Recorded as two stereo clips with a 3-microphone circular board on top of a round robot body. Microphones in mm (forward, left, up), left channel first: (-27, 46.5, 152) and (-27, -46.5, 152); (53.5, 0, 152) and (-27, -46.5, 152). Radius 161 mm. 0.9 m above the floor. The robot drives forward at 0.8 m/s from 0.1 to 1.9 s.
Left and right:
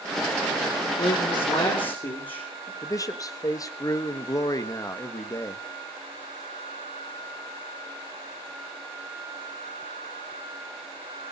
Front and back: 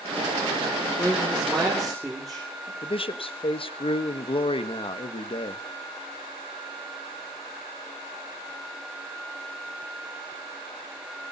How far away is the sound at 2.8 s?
About 1.6 m.